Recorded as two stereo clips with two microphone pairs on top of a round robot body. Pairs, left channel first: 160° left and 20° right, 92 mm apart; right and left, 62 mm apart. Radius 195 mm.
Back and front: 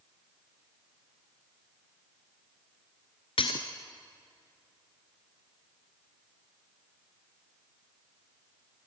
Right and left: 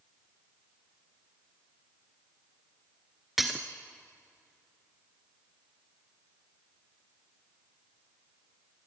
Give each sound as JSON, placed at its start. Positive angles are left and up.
{"t": 3.4, "sound": "breaking glass", "azimuth_deg": 180, "distance_m": 0.5}